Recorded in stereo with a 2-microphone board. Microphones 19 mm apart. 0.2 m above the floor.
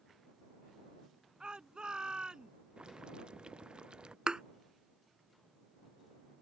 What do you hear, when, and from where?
1.4 s a shout: 50° right (ahead or behind)
2.8 s boiling: 55° right (ahead or behind)
4.3 s a thud: 50° right (ahead or behind)